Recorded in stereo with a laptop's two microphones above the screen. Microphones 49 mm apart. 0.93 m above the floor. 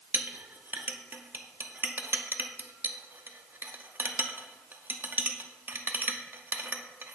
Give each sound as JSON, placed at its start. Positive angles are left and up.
{"t": 0.1, "sound": "a clink", "side_deg": -45, "distance_m": 0.6}